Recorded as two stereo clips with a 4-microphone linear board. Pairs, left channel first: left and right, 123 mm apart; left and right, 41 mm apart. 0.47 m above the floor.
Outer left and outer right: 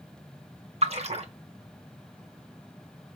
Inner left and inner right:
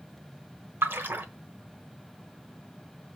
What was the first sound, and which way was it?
A splash, 60° right (ahead or behind).